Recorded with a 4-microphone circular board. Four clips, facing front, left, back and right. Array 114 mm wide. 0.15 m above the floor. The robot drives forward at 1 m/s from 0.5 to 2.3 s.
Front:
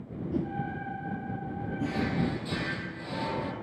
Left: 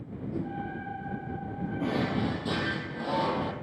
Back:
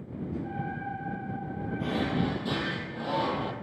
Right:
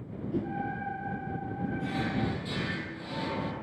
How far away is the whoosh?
About 1.4 m.